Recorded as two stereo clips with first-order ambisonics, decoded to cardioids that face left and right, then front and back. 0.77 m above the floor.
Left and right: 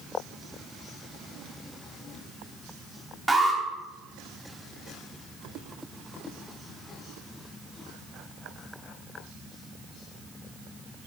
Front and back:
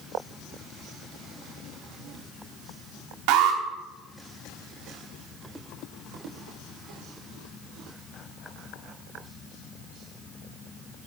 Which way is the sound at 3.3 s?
175° right.